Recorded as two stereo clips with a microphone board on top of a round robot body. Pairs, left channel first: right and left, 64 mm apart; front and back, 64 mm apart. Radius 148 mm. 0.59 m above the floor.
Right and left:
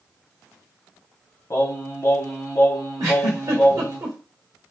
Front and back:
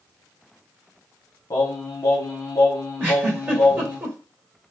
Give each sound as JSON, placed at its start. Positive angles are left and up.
{"t": 1.5, "sound": "singing", "azimuth_deg": -40, "distance_m": 1.1}
{"t": 3.0, "sound": "a giggle", "azimuth_deg": 120, "distance_m": 2.5}